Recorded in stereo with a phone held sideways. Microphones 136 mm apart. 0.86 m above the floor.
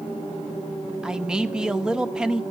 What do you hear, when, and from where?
1.0 s a man speaking: 5° right (ahead or behind), 0.7 m